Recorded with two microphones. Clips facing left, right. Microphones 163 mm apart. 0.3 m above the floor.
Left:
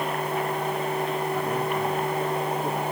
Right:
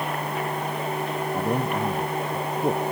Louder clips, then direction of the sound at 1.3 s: Right 1 dB; 35° right (ahead or behind).